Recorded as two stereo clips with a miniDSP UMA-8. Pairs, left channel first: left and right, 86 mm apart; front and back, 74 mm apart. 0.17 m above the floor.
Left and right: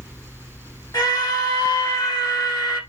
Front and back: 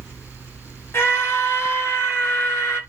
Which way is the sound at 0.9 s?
55° left.